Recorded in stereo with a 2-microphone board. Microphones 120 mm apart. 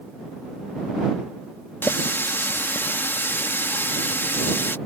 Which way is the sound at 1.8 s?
15° left (ahead or behind).